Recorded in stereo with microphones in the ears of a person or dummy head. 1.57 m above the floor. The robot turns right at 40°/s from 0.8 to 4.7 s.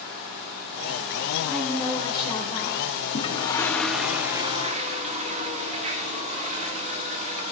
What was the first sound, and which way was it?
A woman speaking, 10° left.